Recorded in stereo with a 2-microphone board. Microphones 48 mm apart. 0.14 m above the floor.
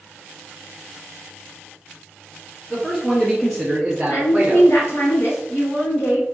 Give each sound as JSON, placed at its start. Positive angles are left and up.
{"t": 2.7, "sound": "a man speaking", "side_deg": 15, "distance_m": 1.6}
{"t": 4.1, "sound": "a woman speaking", "side_deg": 55, "distance_m": 2.0}